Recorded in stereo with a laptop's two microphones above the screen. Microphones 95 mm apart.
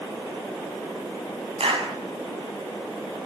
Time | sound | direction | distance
1.6 | a clap | 75° right (ahead or behind) | 7.5 m